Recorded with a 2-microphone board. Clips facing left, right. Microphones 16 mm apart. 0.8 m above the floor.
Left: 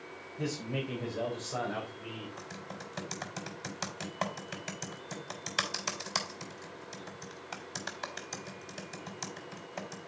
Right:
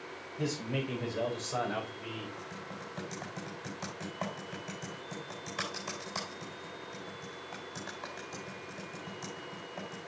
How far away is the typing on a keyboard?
About 4 m.